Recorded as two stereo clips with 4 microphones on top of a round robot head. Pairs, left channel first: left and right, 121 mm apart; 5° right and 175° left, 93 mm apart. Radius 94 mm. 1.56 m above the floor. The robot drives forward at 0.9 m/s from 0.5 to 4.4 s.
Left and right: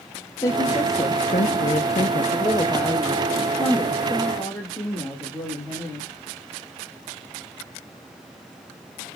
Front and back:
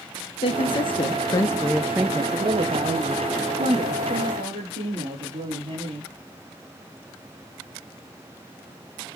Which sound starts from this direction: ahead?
A woman speaking, at 0.4 s.